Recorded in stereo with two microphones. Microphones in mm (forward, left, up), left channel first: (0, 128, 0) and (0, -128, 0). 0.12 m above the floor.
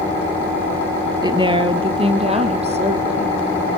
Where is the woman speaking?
15° right (ahead or behind), 2.0 m; by 3.4 s 25° right (ahead or behind), 5 m.